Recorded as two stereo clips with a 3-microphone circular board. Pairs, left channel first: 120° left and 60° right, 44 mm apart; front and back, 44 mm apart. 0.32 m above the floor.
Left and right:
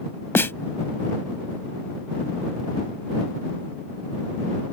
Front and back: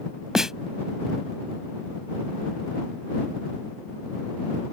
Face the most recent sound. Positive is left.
turn(degrees=105)